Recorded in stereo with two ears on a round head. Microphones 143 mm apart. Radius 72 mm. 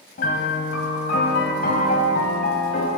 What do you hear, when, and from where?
0.2 s a piano: 60° left (ahead or behind), 1.3 m